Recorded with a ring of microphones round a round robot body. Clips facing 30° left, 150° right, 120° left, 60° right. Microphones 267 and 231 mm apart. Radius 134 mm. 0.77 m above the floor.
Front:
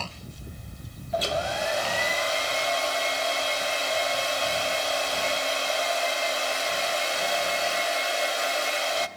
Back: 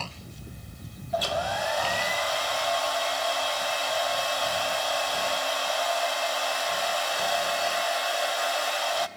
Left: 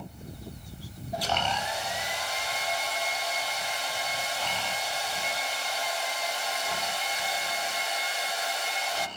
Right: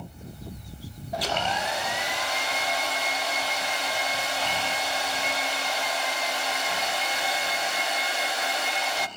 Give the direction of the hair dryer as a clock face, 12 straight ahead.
1 o'clock.